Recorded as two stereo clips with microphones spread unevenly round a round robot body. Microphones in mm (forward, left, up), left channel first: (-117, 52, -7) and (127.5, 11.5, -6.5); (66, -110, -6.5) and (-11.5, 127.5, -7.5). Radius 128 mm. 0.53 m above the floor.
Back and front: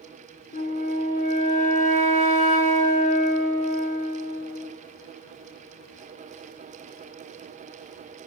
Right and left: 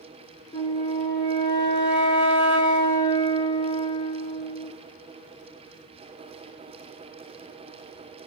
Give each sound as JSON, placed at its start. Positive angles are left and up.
{"t": 0.5, "sound": "a flute", "azimuth_deg": -135, "distance_m": 1.4}